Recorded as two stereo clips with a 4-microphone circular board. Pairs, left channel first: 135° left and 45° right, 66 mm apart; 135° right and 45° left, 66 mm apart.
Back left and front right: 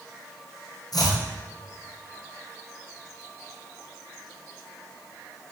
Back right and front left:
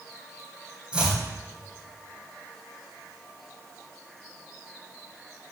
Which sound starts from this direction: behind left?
Chopping, at 0.9 s.